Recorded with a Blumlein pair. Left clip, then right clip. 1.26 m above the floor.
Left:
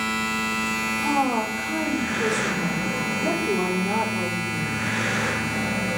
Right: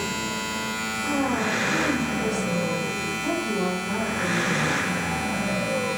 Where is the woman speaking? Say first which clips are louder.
Left 1 dB; 50° left, 5 m.